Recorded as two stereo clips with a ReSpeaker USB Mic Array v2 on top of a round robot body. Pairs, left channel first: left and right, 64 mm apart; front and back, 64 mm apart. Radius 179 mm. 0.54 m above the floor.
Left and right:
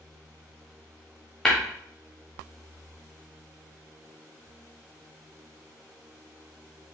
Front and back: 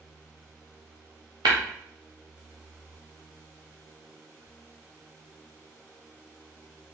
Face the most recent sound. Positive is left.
turn(degrees=175)